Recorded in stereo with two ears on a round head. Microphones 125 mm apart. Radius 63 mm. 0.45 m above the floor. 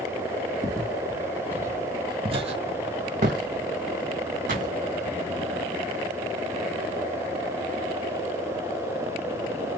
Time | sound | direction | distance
0.6 | footsteps | 5° left (ahead or behind) | 1.1 m